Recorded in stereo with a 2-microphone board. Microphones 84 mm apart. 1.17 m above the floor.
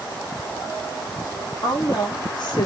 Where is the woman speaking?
60° left (ahead or behind), 1.6 m.